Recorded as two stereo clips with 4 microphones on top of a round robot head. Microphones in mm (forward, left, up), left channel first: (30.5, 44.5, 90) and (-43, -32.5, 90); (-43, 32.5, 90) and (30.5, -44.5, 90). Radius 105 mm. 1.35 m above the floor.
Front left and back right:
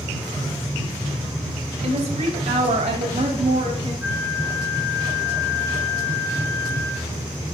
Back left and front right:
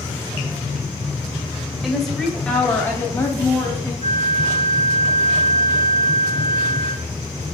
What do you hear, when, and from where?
1.8 s a woman speaking: 135° right, 2 m; by 3.9 s 160° right, 3.5 m
4.0 s a flute: 55° right, 2 m